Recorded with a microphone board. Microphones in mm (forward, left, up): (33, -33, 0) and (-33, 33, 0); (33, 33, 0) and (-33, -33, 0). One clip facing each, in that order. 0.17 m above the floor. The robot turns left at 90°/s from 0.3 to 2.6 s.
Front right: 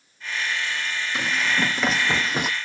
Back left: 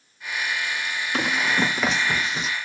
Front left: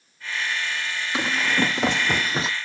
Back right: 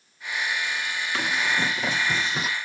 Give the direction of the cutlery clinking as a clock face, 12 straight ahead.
I don't hear cutlery clinking.